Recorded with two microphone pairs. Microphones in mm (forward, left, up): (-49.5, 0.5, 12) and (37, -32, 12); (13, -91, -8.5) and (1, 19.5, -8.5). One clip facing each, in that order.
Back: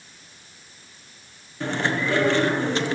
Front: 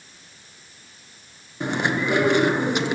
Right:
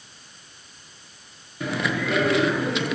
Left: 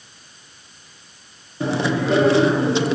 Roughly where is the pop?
I don't hear a pop.